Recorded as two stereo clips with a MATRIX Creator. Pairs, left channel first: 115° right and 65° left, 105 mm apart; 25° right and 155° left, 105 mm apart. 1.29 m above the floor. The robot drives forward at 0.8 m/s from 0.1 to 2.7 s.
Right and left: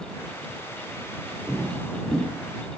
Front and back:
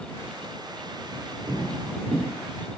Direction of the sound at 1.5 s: 155° left.